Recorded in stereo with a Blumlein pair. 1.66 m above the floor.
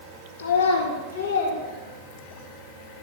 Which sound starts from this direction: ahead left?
A child speaking, at 0.4 s.